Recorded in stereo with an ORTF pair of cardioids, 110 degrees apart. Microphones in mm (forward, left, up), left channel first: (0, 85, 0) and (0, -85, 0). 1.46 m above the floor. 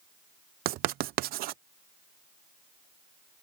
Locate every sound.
0.7 s writing: 70° right